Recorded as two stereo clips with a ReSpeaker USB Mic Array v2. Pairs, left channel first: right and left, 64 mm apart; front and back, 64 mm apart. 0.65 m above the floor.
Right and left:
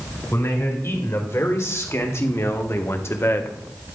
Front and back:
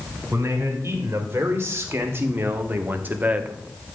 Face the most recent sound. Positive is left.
turn(degrees=-110)